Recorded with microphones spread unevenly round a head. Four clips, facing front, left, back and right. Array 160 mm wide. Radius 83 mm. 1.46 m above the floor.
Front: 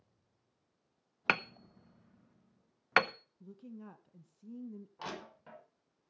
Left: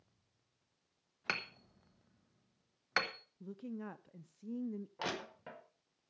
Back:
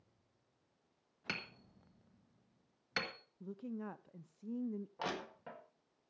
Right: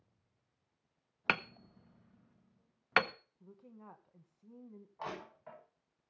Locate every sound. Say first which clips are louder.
1.3 s hammering: right 6 dB, front 13 dB; 20° right, 0.7 m
3.4 s a woman speaking: left 11 dB, back 5 dB; 105° left, 0.6 m
5.0 s crushing: right 1 dB, even; 100° left, 5 m